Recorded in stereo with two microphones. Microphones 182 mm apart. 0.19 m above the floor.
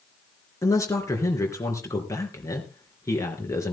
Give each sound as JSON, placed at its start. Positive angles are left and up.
{"t": 0.6, "sound": "a man speaking", "side_deg": 15, "distance_m": 3.5}